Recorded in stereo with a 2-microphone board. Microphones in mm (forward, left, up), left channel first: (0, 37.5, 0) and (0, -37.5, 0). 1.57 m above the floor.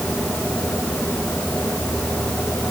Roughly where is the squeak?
I don't hear a squeak.